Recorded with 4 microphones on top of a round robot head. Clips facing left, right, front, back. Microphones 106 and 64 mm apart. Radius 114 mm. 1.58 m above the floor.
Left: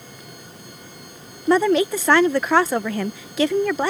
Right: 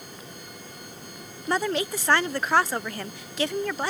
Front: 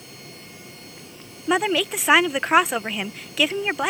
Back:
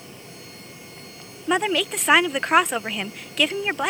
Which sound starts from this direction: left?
A woman speaking, at 1.5 s.